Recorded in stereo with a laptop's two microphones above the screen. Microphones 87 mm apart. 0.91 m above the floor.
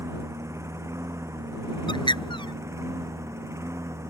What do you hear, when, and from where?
0.0 s a lawn mower: 30° right (ahead or behind)
1.9 s a bird: 60° left (ahead or behind)